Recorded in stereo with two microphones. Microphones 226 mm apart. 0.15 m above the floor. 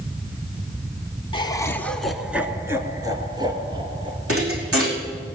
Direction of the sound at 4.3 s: 80° right.